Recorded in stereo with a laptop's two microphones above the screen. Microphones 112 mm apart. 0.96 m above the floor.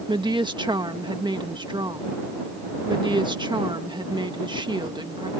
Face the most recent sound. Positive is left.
turn(degrees=-45)  # may be behind; listen again after turning